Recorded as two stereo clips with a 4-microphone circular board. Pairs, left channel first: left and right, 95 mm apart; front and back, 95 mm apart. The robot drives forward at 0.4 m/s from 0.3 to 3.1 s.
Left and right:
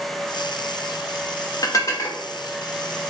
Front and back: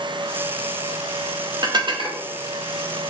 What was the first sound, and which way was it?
Dishes clattering, 140° left.